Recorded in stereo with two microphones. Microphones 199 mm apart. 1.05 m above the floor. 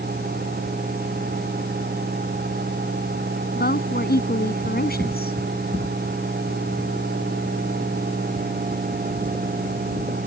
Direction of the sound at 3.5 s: 50° left (ahead or behind).